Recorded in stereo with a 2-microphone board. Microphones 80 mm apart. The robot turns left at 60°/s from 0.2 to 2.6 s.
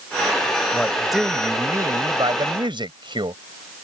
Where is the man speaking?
20° left; by 3.4 s 90° right.